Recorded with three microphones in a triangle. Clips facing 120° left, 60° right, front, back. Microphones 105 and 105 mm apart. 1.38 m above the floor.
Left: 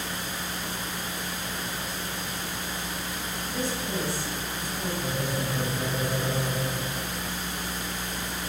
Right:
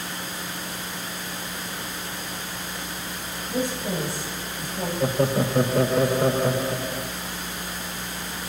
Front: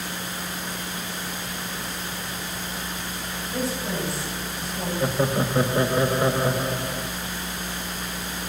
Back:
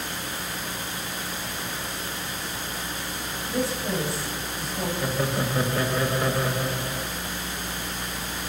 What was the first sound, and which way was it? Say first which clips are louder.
A woman speaking: right 5 dB, back 1 dB; 100° right.